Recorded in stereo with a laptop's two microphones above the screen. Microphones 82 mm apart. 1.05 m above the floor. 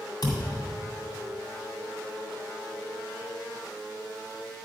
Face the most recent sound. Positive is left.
turn(degrees=55)  # may be behind; listen again after turning